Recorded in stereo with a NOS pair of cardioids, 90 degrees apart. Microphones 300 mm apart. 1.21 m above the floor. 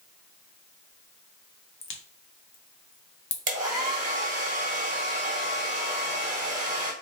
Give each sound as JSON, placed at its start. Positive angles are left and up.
{"t": 1.8, "sound": "a crack", "azimuth_deg": 45, "distance_m": 0.9}
{"t": 3.5, "sound": "a hair dryer", "azimuth_deg": -25, "distance_m": 1.4}